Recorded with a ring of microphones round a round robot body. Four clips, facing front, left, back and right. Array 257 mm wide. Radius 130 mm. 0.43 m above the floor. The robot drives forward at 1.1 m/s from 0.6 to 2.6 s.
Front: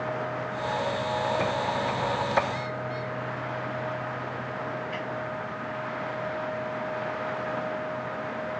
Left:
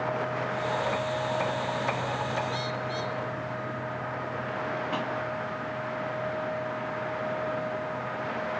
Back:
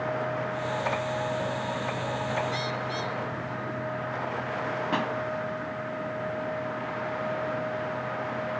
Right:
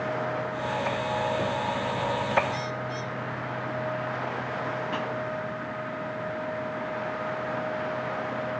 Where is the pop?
Straight behind.